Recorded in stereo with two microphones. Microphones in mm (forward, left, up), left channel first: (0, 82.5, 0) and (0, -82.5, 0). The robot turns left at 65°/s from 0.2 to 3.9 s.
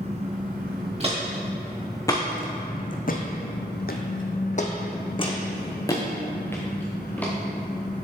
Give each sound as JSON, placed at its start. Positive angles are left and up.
{"t": 0.0, "sound": "an engine running", "azimuth_deg": -45, "distance_m": 1.3}
{"t": 1.0, "sound": "footsteps", "side_deg": -40, "distance_m": 2.0}